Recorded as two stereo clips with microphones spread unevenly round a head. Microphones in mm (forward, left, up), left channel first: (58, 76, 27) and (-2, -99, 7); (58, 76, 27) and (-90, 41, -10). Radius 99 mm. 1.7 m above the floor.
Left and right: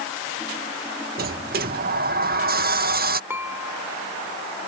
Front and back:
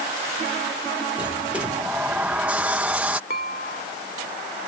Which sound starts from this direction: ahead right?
Dishes clattering, at 3.3 s.